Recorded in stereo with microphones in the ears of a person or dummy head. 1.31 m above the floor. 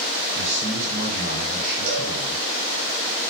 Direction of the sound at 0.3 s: 45° right (ahead or behind).